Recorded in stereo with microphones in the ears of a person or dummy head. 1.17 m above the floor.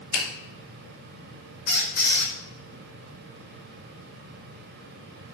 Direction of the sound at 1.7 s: 60° left (ahead or behind).